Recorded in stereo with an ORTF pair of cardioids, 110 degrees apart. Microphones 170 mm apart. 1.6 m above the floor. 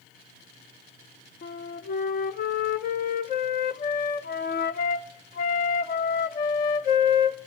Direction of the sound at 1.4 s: 55° left.